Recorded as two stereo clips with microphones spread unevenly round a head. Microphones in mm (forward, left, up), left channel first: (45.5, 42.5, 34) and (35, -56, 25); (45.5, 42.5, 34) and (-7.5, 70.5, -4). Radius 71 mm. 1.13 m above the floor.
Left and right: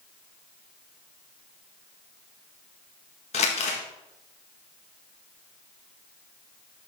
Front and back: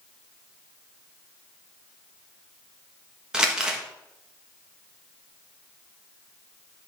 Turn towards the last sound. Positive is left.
turn(degrees=85)